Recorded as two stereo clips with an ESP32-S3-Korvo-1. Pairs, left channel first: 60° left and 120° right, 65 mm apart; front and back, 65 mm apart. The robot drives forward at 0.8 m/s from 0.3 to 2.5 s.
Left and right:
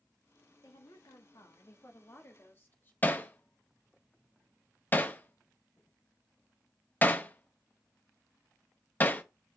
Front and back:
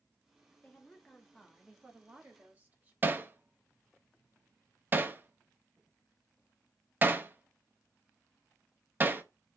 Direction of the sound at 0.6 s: 70° left.